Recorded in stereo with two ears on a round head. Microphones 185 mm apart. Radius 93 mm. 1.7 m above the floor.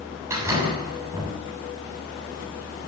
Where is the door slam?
15° right (ahead or behind), 7.5 m.